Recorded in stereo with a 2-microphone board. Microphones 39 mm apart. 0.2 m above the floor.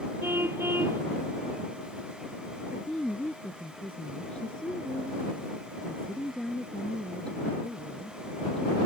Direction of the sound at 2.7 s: 30° left (ahead or behind).